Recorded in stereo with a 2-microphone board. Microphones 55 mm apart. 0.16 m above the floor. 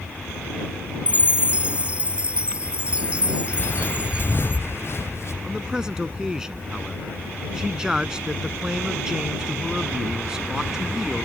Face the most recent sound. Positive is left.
turn(degrees=-15)  # may be behind; listen again after turning